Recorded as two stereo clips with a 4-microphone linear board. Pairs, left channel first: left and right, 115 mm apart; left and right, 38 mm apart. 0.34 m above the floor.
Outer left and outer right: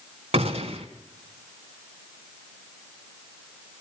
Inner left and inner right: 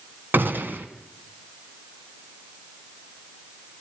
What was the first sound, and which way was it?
A gunshot, 75° right (ahead or behind).